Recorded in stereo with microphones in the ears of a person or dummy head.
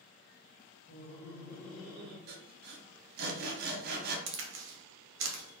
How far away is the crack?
About 0.6 m.